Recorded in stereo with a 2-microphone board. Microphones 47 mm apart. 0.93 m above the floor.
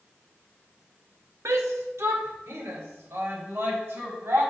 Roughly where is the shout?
Right.